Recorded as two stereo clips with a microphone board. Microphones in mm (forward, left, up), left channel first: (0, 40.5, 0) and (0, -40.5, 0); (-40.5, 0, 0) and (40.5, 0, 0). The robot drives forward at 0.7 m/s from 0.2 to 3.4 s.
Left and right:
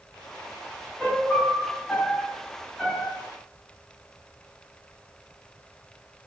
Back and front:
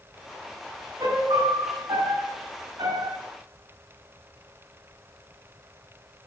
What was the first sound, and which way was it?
A piano, 10° left.